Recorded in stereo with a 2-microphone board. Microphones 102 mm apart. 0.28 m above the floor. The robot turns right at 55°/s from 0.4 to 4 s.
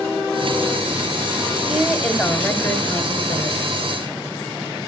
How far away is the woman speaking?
About 1.6 m.